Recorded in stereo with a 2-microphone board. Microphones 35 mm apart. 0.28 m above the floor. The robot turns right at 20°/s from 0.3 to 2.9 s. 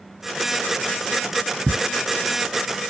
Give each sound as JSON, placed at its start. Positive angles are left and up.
{"t": 1.7, "sound": "ticking", "side_deg": -25, "distance_m": 0.5}